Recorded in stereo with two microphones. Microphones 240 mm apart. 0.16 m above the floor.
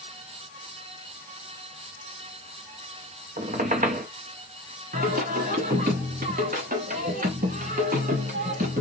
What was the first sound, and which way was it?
A squeak, 35° right (ahead or behind).